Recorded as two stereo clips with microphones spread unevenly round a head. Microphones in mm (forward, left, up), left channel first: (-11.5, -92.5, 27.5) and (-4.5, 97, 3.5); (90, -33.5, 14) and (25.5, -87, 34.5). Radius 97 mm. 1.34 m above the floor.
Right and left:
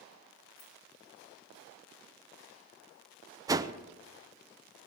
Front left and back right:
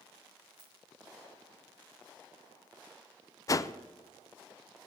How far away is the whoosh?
About 0.6 m.